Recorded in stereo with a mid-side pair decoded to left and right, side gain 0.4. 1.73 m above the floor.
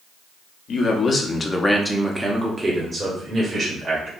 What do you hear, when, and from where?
0.7 s a man speaking: 65° left, 1.3 m; by 4.1 s 50° right, 2.5 m